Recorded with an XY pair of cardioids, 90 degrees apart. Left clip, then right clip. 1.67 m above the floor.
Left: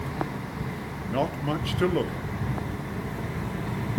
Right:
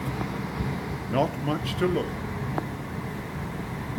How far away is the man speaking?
About 1.1 m.